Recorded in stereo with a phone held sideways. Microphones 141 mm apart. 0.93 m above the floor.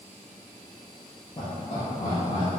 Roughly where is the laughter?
Left.